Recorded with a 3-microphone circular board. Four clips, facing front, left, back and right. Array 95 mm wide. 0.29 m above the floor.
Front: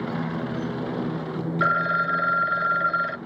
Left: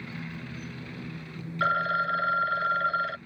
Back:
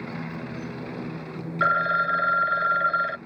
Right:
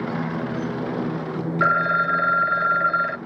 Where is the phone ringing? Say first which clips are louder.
Right 6 dB, back 1 dB; 90° right.